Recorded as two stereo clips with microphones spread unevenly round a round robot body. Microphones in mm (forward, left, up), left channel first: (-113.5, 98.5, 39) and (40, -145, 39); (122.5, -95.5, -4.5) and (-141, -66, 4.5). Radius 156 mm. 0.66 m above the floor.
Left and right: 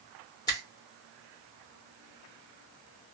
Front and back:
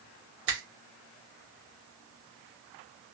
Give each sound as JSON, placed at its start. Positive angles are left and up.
{"t": 0.5, "sound": "a finger snap", "azimuth_deg": -165, "distance_m": 1.1}